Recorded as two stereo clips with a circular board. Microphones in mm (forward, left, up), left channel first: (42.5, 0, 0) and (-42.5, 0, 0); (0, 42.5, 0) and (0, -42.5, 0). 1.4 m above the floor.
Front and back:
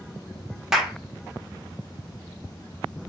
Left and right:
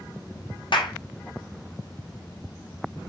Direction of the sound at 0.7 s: 95° left.